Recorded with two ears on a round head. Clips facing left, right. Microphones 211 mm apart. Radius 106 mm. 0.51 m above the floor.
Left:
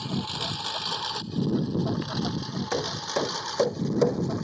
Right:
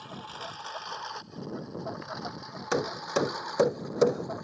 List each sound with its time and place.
0.0 s a lawn mower: 60° left (ahead or behind); by 4.5 s 45° left (ahead or behind)
2.7 s hammering: 5° right (ahead or behind)